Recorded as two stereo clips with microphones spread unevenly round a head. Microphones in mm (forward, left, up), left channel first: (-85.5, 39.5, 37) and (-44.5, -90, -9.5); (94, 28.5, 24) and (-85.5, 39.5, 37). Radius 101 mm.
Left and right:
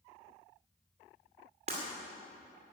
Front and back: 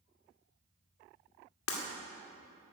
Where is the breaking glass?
5° right, 2 m.